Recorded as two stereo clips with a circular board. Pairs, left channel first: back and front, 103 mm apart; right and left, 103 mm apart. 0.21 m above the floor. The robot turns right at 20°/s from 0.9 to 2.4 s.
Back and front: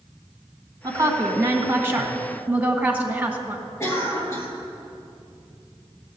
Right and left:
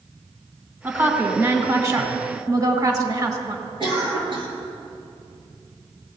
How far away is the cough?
About 3.5 m.